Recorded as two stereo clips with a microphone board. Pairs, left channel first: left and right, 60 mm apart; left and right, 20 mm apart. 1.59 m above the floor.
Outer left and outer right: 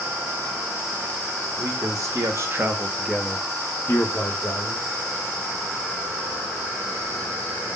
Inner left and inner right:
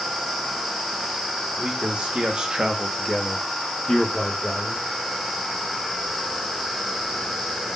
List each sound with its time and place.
1.6 s a man speaking: 70° right (ahead or behind), 1.0 m; by 4.9 s 55° left (ahead or behind), 1.1 m